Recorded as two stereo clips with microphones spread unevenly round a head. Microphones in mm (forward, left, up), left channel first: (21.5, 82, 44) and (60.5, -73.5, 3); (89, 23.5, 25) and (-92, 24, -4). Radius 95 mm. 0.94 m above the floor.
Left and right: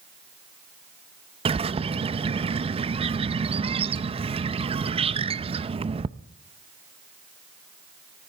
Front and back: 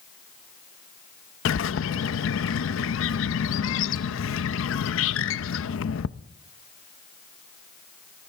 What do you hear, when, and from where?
1.4 s a bird: 25° right, 0.6 m